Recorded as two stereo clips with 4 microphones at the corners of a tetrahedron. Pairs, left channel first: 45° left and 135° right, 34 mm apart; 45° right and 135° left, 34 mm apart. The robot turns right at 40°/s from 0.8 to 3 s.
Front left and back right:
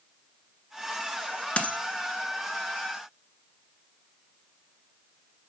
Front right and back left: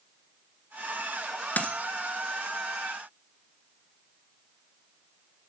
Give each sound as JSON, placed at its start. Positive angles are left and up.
{"t": 1.6, "sound": "a dropped coin", "azimuth_deg": -10, "distance_m": 1.3}